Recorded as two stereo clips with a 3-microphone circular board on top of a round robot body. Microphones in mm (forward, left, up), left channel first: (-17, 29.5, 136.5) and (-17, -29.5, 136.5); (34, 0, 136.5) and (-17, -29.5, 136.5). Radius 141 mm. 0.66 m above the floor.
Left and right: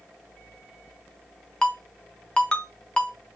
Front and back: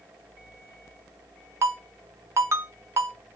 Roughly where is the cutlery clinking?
I don't hear cutlery clinking.